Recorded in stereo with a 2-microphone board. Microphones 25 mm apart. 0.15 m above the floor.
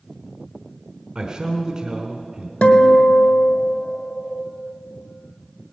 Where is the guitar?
60° left (ahead or behind), 1.3 m.